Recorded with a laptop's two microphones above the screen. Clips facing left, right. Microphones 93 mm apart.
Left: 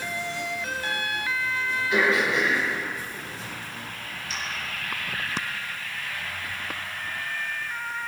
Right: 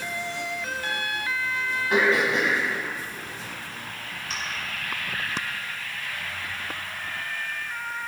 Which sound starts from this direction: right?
Throat clearing, at 1.9 s.